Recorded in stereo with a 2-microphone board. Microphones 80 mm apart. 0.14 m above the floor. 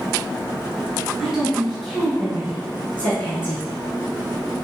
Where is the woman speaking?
5° right (ahead or behind), 1.6 m; by 3.7 s 25° left (ahead or behind), 1.7 m.